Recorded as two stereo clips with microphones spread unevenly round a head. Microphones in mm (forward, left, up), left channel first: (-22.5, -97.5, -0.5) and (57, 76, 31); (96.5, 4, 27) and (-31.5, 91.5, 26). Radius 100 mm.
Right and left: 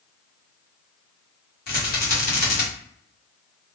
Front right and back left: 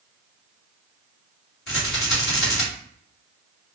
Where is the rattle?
70° right, 1.2 m.